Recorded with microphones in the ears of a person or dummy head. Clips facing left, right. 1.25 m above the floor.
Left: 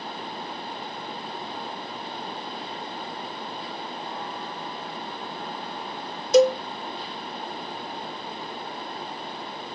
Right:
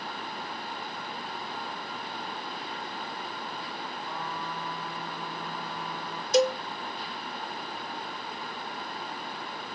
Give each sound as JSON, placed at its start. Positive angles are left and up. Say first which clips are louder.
{"t": 4.0, "sound": "a trumpet", "louder": "left 2 dB", "side_deg": -80}
{"t": 6.3, "sound": "a cowbell", "louder": "left 7 dB", "side_deg": 70}